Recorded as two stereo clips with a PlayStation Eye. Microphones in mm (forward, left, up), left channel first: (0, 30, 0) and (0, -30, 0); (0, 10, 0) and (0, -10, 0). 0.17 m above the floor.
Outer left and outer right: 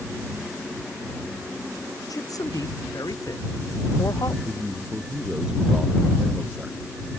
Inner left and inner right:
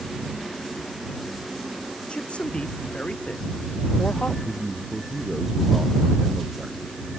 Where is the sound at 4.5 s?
15° right (ahead or behind).